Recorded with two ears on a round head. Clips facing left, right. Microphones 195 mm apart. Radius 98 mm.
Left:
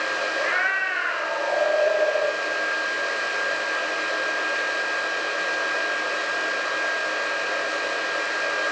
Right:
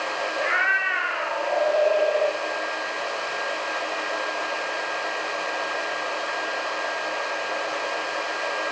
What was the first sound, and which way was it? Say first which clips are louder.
A cat meowing: even; centre (ahead or behind).